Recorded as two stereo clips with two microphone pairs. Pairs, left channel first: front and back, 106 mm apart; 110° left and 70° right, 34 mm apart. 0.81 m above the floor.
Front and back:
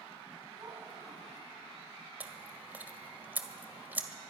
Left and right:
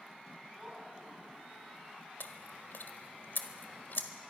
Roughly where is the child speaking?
Behind right.